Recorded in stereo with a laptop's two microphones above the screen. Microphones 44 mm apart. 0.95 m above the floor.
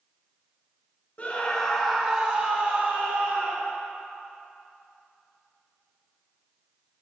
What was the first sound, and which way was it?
A scream, 35° left (ahead or behind).